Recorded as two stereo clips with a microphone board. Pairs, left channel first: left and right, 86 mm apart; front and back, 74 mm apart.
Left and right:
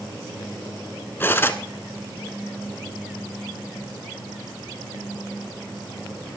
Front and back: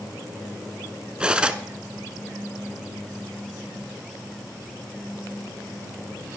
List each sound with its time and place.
1.2 s cutlery clinking: 120° left, 0.9 m